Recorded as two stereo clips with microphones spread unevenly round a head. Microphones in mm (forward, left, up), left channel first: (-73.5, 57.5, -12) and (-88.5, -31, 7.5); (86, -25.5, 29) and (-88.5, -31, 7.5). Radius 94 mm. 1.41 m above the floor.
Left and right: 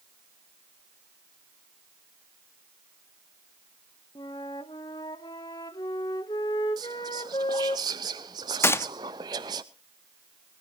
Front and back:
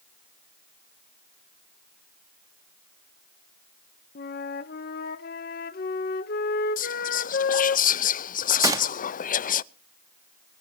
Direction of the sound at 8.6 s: 120° left.